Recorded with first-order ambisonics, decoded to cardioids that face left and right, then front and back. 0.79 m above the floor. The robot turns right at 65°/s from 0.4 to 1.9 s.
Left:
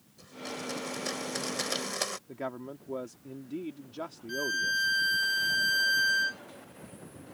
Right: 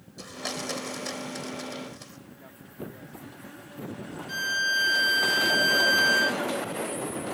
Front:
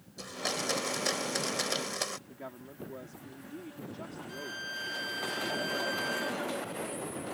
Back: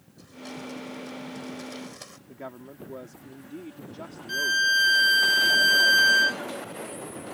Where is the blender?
45° right; by 2.2 s 55° left.